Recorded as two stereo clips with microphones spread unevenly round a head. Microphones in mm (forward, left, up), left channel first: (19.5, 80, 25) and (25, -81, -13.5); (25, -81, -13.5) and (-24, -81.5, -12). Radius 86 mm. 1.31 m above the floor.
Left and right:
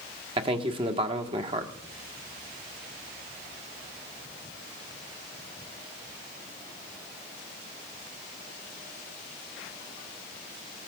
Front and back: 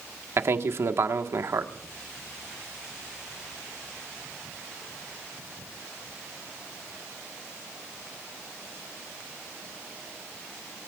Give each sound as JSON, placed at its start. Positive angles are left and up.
{"t": 0.4, "sound": "a man speaking", "azimuth_deg": -145, "distance_m": 1.5}